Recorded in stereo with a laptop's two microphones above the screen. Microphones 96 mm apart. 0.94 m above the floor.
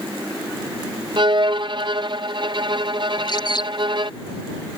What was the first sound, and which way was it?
A violin, 50° right (ahead or behind).